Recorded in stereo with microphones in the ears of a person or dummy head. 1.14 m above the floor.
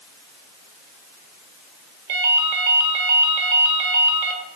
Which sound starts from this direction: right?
A ringtone, at 2.1 s.